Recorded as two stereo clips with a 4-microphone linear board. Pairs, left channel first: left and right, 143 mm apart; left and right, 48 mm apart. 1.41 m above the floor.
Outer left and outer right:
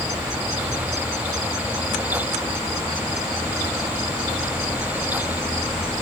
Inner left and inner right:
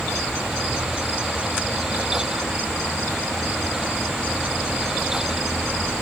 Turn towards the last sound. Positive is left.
No sound to turn to.